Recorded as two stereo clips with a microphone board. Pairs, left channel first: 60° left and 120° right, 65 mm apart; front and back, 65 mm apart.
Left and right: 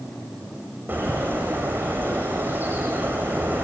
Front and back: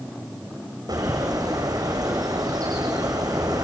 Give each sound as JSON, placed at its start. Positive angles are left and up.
{"t": 0.9, "sound": "a bird", "azimuth_deg": 180, "distance_m": 7.0}